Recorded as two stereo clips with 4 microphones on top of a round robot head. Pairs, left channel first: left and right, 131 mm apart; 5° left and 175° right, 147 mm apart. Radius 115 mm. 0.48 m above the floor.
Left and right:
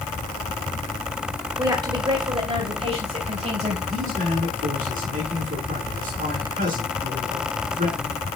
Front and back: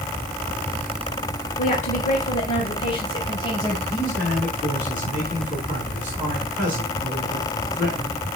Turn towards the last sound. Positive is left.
turn(degrees=-90)